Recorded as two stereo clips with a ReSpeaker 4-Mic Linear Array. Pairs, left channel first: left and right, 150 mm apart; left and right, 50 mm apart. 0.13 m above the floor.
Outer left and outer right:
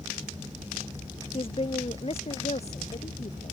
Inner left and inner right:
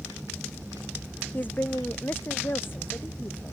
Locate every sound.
1.3 s a woman speaking: 40° left (ahead or behind); by 3.5 s 50° left (ahead or behind)